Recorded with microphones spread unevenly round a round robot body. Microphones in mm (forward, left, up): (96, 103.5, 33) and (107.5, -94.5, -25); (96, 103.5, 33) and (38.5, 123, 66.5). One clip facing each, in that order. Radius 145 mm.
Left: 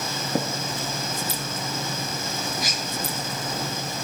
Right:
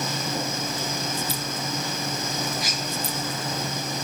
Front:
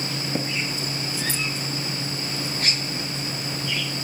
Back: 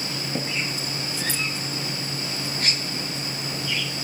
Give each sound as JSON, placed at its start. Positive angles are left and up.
{"t": 0.3, "sound": "tapping", "azimuth_deg": 55, "distance_m": 2.5}